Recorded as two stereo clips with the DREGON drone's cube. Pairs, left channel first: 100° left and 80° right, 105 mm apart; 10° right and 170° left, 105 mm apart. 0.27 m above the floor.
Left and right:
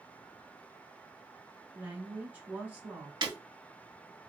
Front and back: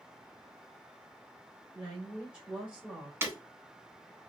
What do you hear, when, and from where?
1.7 s a woman speaking: 130° right, 1.5 m
3.2 s breaking glass: 125° right, 0.9 m